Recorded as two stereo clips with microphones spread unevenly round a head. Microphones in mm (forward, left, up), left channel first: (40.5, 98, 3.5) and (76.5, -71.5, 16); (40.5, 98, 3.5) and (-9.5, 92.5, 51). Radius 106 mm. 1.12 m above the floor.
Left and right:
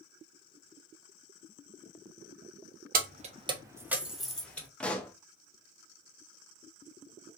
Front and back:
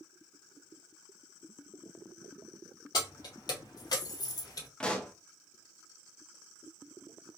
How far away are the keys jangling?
About 0.5 m.